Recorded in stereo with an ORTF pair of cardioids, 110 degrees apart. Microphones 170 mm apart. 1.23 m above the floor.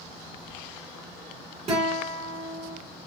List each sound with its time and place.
1.7 s a guitar: 35° right, 2 m